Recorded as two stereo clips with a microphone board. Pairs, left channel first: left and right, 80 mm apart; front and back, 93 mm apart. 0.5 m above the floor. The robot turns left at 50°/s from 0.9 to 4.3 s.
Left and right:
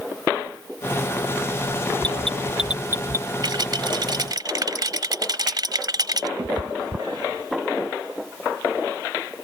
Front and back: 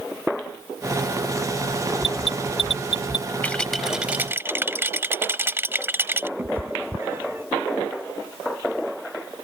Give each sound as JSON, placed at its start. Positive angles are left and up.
{"t": 2.0, "sound": "an alarm", "azimuth_deg": 15}
{"t": 3.4, "sound": "a rattle", "azimuth_deg": -75}
{"t": 6.4, "sound": "a cat meowing", "azimuth_deg": -115}